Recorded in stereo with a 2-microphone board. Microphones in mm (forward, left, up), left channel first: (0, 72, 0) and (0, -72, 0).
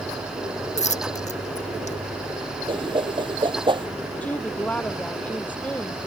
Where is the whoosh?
35° right (ahead or behind).